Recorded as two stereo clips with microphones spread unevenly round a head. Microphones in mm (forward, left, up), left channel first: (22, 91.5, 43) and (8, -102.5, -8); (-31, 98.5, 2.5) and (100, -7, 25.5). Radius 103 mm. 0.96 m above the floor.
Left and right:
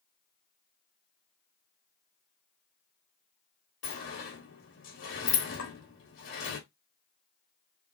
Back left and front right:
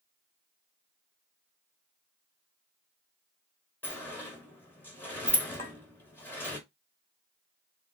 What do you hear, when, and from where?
3.8 s a sliding door: 60° left, 2.5 m
5.6 s a clink: 75° left, 3.5 m